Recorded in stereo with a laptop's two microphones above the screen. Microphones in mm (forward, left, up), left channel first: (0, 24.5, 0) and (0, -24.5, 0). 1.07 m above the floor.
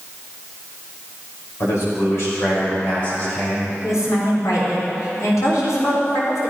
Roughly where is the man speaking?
Left.